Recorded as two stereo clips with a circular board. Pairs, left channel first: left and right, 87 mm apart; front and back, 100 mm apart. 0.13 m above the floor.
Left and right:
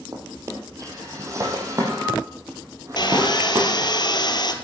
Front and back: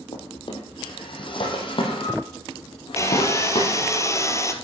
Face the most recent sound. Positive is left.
turn(degrees=60)